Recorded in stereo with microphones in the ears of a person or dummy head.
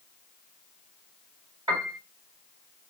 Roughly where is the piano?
Centre.